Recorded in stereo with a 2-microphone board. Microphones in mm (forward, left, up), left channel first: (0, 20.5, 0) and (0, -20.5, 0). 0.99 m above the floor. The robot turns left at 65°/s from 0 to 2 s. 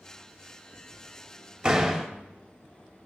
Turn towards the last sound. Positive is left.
turn(degrees=10)  # may be behind; listen again after turning